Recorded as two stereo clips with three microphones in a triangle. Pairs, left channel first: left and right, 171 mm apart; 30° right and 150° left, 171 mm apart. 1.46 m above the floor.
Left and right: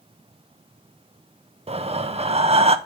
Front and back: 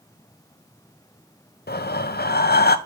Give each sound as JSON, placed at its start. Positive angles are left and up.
{"t": 1.7, "sound": "breathing", "azimuth_deg": -35, "distance_m": 0.5}